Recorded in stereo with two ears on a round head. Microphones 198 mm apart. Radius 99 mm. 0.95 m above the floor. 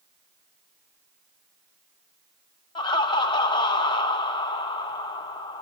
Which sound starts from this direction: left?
Laughter, at 2.8 s.